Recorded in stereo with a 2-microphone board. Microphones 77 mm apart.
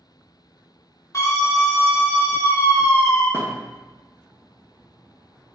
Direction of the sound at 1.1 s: 40° left (ahead or behind).